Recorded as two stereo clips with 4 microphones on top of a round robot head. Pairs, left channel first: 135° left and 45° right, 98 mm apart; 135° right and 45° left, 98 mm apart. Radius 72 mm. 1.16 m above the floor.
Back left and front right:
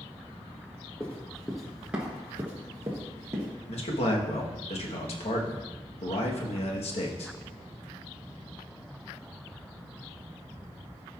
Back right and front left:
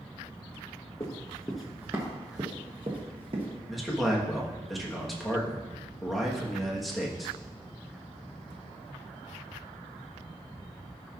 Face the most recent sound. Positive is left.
turn(degrees=140)